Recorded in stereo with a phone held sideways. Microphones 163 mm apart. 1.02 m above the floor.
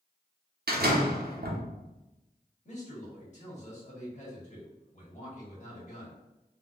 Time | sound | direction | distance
0.7 | a door slam | 75° right (ahead or behind) | 0.8 m
2.6 | a man speaking | 45° left (ahead or behind) | 1.8 m